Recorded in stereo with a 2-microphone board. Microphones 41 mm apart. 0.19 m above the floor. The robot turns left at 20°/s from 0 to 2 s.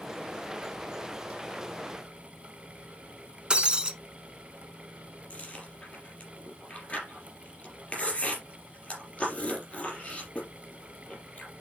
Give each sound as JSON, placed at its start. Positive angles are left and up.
{"t": 3.5, "sound": "breaking glass", "side_deg": -25, "distance_m": 1.3}
{"t": 5.3, "sound": "chewing", "side_deg": 30, "distance_m": 4.5}